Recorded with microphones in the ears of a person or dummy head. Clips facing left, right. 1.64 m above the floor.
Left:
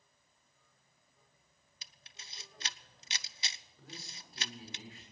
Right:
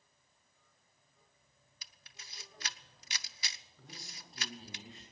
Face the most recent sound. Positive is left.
turn(degrees=5)  # may be behind; listen again after turning